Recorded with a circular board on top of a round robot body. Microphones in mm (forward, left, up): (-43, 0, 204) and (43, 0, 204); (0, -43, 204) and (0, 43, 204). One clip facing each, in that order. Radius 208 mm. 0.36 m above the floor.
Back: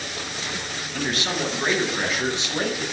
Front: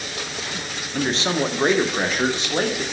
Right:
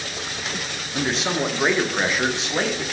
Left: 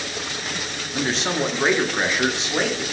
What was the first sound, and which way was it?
A man speaking, 5° right.